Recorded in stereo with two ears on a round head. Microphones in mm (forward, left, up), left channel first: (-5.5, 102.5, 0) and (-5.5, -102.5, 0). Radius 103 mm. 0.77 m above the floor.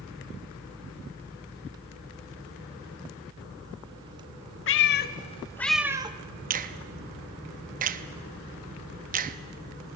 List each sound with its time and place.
4.7 s a cat meowing: 60° left (ahead or behind), 0.9 m; by 6.2 s 25° right (ahead or behind), 0.8 m
6.5 s a finger snap: 35° right (ahead or behind), 0.7 m